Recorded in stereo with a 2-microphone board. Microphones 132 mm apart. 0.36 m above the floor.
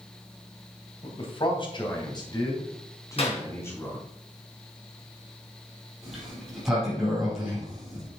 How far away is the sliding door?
About 5 m.